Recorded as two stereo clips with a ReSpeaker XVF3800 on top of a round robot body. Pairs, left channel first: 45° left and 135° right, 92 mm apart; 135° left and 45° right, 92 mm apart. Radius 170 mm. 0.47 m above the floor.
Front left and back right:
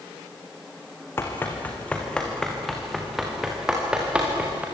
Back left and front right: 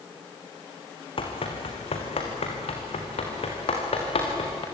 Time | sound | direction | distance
1.2 | running footsteps | 110° left | 3 m